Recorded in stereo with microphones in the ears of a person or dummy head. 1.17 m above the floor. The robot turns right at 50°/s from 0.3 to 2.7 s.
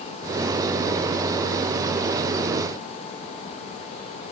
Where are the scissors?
No scissors in this recording.